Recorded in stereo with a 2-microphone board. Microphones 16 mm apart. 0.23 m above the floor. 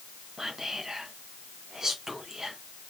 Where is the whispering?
25° right (ahead or behind), 2 m.